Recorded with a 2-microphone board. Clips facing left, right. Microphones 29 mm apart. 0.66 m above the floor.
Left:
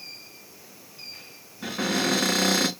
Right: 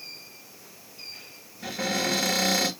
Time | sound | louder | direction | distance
1.6 | a cupboard door | left 2 dB | 50° left (ahead or behind) | 4 m